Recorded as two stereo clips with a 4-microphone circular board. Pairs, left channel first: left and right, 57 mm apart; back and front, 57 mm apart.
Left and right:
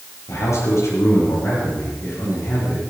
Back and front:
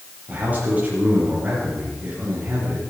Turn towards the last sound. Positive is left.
turn(degrees=60)